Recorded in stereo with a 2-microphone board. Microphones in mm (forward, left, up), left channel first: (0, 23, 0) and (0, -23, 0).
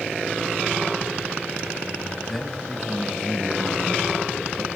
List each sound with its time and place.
2.3 s a man speaking: 5° left (ahead or behind), 1.5 m